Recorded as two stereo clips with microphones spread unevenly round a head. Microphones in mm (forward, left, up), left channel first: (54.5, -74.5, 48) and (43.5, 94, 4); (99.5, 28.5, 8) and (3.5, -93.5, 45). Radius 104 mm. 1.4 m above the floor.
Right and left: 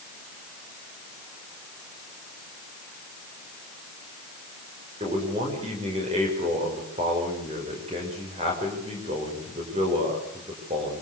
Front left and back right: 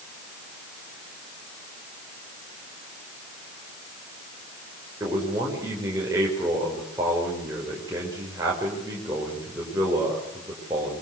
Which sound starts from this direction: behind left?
A man speaking, at 5.0 s.